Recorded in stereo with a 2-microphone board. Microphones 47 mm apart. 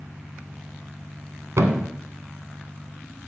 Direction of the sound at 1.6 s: 70° right (ahead or behind).